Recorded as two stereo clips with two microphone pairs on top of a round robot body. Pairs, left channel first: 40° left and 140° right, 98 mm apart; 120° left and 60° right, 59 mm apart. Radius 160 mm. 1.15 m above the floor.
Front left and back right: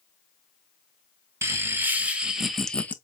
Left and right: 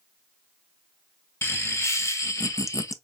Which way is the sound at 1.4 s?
160° left.